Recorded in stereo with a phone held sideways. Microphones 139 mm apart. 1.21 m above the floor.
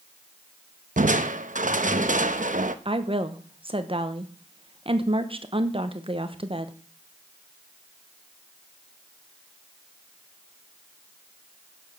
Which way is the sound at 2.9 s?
40° right (ahead or behind).